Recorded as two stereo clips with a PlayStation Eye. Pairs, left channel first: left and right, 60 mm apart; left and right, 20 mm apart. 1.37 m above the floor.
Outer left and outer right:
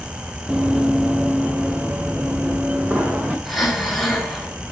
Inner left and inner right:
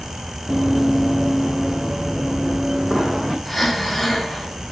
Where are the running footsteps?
15° right (ahead or behind), 1.6 m; by 3.4 s 30° right (ahead or behind), 3.5 m.